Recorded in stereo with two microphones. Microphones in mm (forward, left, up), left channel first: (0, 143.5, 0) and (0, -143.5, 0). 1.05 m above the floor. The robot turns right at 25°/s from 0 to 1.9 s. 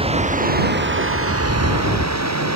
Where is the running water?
160° right; by 2.6 s 115° right.